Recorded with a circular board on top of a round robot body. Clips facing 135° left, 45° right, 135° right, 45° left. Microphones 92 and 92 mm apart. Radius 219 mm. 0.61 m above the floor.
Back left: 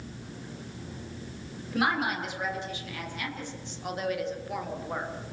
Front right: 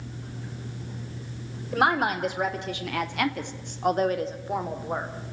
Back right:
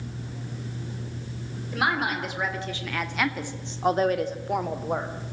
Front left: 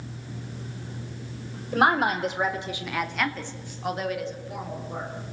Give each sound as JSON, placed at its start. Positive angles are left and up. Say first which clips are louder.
{"t": 1.7, "sound": "a woman speaking", "louder": "front right 5 dB, front left 5 dB", "azimuth_deg": -5, "distance_m": 3.5}